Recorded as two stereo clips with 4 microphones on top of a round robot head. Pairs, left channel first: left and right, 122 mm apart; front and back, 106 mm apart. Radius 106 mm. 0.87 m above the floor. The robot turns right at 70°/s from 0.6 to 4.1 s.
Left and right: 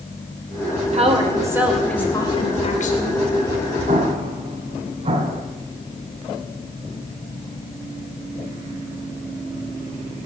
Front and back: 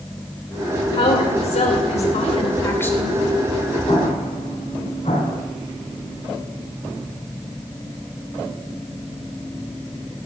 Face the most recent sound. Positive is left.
turn(degrees=-55)